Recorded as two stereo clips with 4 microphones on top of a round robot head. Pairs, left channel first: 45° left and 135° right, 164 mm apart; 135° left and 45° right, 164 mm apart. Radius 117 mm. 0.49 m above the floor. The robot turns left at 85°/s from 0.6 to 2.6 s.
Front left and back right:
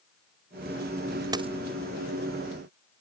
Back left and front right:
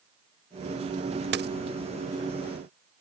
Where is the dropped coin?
65° right; by 1.5 s 80° right.